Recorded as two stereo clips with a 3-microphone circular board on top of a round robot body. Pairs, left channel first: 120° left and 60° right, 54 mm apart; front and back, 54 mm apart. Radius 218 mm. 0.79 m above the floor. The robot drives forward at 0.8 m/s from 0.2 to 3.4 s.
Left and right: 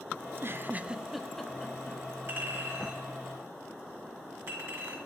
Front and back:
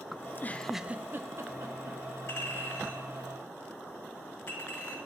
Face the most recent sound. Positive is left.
turn(degrees=-40)